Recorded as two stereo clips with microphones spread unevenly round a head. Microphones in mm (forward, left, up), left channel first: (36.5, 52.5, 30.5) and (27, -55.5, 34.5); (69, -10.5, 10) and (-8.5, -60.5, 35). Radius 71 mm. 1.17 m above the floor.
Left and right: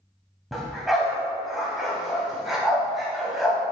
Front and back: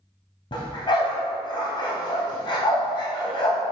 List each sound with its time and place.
0.5 s a dog barking: 10° right, 2.0 m